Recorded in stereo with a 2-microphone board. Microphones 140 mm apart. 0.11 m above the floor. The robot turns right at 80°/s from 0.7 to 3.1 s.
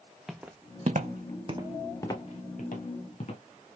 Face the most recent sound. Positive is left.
turn(degrees=55)  # may be behind; listen again after turning